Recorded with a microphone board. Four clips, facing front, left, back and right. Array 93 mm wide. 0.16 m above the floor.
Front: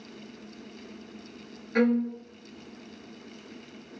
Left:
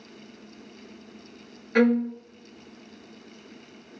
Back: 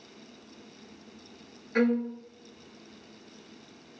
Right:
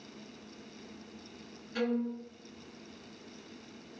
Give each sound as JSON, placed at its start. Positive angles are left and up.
{"t": 1.8, "sound": "a violin", "azimuth_deg": 90, "distance_m": 0.7}